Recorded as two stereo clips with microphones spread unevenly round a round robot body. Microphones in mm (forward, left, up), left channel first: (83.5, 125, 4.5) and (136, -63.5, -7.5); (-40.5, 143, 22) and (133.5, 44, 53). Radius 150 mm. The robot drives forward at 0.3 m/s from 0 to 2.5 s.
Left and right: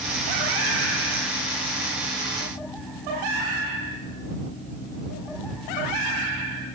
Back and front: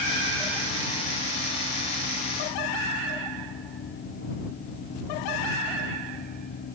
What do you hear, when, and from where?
Only background noise.